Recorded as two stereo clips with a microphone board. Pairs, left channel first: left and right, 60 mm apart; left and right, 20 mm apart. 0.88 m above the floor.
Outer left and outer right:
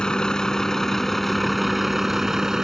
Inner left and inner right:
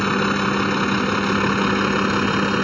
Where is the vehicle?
15° left (ahead or behind); by 2.6 s 10° right (ahead or behind).